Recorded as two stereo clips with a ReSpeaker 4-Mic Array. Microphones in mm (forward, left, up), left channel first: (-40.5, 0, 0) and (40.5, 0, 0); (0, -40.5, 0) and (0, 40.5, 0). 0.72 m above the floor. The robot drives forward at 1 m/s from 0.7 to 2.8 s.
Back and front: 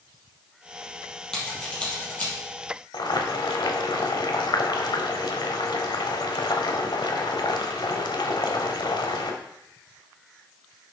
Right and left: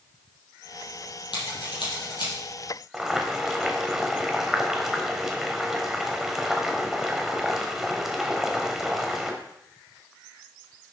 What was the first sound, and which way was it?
Scissors, 100° right.